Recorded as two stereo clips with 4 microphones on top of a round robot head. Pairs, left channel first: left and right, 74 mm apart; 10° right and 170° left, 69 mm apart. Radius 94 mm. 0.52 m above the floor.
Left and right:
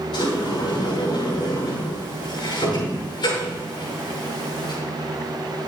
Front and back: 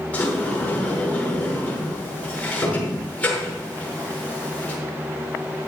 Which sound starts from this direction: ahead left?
A sliding door, at 0.1 s.